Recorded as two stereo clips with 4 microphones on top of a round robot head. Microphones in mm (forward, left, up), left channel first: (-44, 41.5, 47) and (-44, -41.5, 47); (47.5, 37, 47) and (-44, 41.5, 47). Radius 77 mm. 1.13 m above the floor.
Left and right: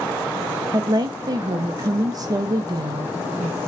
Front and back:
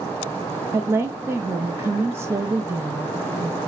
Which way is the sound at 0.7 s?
120° right.